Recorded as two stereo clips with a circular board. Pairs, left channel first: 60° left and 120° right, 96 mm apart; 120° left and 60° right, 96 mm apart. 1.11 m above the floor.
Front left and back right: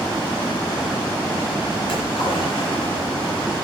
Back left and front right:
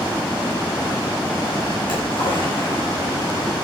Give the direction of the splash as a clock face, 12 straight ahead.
9 o'clock.